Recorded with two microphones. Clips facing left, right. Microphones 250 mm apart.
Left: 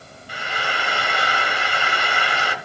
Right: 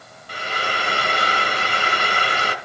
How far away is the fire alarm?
I don't hear a fire alarm.